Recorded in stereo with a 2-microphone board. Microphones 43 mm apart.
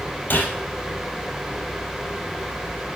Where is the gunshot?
40° left (ahead or behind), 3.5 m.